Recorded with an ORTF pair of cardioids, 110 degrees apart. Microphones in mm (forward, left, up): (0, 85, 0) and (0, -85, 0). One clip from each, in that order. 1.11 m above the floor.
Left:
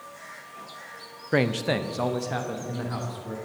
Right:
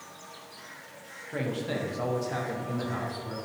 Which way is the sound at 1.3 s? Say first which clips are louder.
Left 8 dB; 70° left.